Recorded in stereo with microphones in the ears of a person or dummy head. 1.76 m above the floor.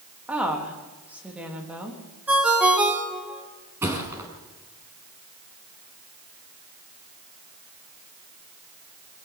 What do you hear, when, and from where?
0.3 s a woman speaking: 5° right (ahead or behind), 3.5 m
2.3 s a ringtone: 10° right (ahead or behind), 3 m
3.8 s a thud: 15° right (ahead or behind), 5.5 m